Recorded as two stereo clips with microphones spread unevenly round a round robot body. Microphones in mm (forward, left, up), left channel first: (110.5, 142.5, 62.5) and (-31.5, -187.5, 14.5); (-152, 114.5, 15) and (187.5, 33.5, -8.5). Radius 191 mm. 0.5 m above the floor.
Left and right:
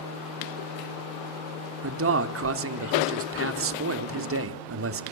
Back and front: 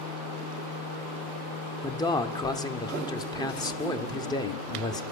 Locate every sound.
1.8 s a man speaking: 115° right, 1.0 m